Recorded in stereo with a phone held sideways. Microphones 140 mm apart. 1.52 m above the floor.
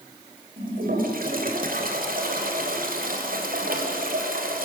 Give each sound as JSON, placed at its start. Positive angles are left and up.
{"t": 0.6, "sound": "a toilet flushing", "side_deg": -75, "distance_m": 3.5}